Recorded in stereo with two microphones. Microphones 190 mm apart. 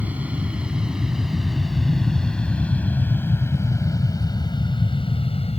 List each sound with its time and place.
0.0 s an aircraft: 10° right (ahead or behind); by 5.6 s 35° left (ahead or behind)